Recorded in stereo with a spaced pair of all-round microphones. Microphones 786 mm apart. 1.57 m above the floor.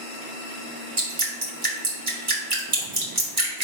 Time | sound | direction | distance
1.0 | dripping | 45° right (ahead or behind) | 1.7 m